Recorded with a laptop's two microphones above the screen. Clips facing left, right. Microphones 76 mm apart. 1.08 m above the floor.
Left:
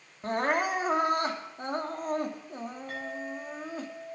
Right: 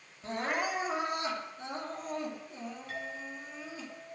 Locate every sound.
0.2 s crying: 50° left (ahead or behind), 2.5 m
2.9 s a clink: 35° left (ahead or behind), 8.5 m